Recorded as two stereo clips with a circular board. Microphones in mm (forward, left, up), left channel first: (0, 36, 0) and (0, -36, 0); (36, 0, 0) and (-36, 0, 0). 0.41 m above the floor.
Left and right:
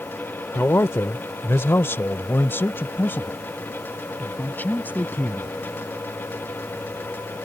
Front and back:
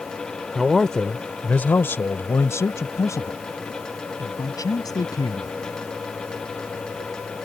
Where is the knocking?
I don't hear knocking.